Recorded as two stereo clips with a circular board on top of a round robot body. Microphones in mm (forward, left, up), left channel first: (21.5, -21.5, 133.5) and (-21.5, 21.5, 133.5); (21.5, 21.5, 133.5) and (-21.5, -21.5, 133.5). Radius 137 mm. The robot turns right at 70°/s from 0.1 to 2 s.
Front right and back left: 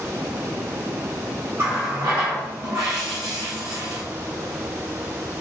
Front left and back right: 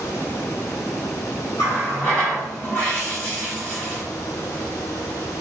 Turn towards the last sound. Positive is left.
turn(degrees=110)